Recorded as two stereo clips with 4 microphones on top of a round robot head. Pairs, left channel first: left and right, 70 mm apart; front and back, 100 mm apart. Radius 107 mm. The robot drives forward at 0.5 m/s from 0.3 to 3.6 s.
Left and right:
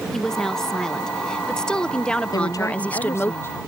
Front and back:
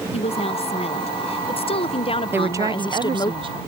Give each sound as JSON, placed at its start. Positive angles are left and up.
{"t": 0.1, "sound": "a woman speaking", "azimuth_deg": 10}
{"t": 2.3, "sound": "a woman speaking", "azimuth_deg": 115}